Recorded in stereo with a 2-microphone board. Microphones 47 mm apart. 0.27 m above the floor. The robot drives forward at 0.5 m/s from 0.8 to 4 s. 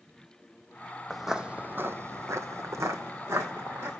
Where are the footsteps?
5° right (ahead or behind), 0.7 m; by 3.9 s 60° right (ahead or behind), 1.8 m.